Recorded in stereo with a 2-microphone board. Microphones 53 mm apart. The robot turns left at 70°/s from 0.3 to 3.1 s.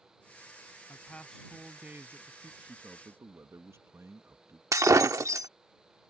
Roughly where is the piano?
I don't hear a piano.